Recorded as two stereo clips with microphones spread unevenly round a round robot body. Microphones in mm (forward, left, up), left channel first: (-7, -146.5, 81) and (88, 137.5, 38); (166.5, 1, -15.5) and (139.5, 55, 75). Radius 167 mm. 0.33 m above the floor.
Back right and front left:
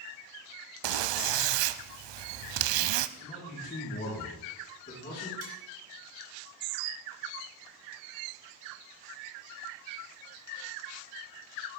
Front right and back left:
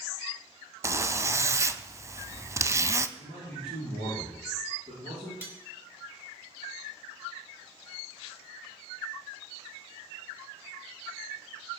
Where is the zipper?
70° left, 0.6 m.